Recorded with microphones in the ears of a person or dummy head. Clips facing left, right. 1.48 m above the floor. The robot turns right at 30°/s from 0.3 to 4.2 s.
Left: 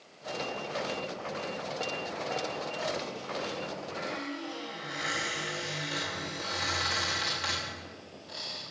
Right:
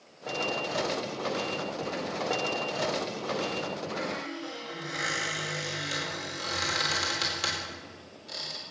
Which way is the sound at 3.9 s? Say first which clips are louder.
Right 2 dB; 45° right (ahead or behind).